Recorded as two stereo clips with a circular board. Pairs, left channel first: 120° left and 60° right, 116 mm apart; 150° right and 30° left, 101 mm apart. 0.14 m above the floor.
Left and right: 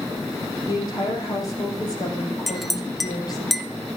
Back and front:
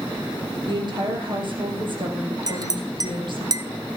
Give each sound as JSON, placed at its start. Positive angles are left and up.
{"t": 0.7, "sound": "a woman speaking", "azimuth_deg": 65, "distance_m": 4.5}
{"t": 2.5, "sound": "a clink", "azimuth_deg": 30, "distance_m": 1.1}